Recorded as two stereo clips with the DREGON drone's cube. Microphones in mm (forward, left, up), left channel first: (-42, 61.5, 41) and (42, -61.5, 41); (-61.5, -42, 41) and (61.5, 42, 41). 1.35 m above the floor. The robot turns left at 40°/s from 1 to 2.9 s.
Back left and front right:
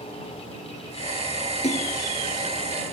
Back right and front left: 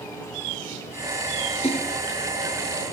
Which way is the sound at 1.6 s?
170° left.